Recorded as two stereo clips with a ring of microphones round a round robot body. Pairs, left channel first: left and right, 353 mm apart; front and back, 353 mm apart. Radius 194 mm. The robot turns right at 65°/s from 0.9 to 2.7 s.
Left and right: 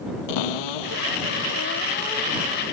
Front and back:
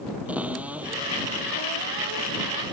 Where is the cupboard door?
95° left; by 2.6 s 155° right.